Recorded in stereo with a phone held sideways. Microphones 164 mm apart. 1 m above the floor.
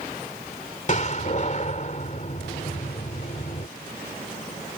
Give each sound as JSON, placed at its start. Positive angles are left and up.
{"t": 0.9, "sound": "a door slam", "side_deg": 50}